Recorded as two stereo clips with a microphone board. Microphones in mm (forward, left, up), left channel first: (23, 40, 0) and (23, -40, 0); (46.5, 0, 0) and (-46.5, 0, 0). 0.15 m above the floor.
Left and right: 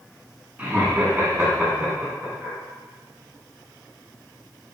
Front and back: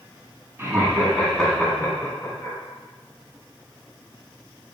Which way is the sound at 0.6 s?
140° right.